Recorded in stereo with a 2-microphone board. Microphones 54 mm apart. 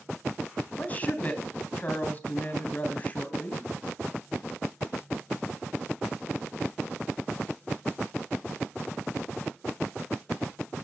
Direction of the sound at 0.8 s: 30° left (ahead or behind).